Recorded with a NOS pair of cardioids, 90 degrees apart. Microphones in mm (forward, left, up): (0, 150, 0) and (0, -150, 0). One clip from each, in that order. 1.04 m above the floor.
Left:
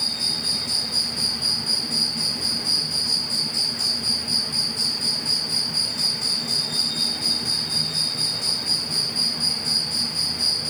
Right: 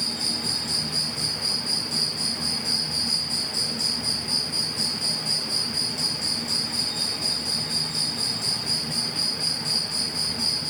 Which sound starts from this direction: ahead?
An insect, at 0.0 s.